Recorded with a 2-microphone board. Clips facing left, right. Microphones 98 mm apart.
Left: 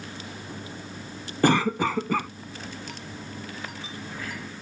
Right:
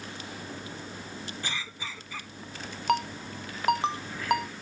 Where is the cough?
65° left (ahead or behind).